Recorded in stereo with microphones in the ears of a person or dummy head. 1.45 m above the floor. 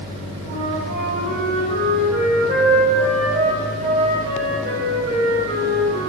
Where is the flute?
40° right (ahead or behind), 6 m.